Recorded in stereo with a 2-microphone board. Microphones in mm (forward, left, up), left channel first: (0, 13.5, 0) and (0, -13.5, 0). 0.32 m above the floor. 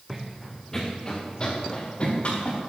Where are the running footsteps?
5° right (ahead or behind), 1.9 m; by 2.6 s 45° left (ahead or behind), 3.5 m.